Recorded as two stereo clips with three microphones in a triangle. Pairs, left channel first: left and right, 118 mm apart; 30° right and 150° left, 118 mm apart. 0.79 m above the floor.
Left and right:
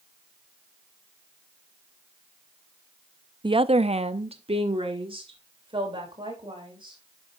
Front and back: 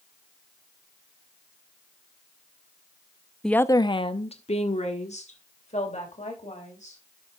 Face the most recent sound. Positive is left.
turn(degrees=-40)